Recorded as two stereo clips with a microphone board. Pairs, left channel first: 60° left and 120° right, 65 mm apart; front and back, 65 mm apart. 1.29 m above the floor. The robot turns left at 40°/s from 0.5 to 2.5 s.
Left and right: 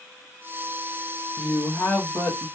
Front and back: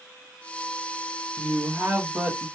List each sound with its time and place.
1.4 s a woman speaking: 140° left, 1.2 m; by 2.5 s 100° left, 1.2 m